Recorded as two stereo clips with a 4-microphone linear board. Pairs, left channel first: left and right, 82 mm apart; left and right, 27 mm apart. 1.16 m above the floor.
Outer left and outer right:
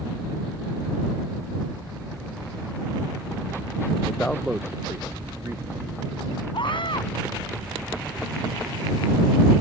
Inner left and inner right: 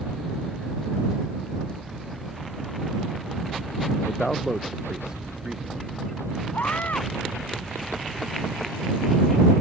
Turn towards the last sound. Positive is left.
turn(degrees=70)  # may be behind; listen again after turning